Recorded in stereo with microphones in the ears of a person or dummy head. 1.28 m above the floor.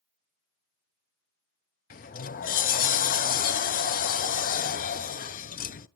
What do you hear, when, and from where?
1.9 s a sliding door: 40° left (ahead or behind), 0.5 m